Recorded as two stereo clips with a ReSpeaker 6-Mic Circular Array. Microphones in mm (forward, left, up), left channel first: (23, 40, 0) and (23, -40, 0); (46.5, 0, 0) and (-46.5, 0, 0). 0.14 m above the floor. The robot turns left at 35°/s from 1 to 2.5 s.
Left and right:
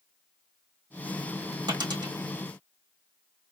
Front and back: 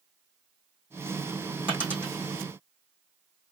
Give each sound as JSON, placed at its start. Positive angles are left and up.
{"t": 1.7, "sound": "a dropped coin", "azimuth_deg": -105, "distance_m": 3.0}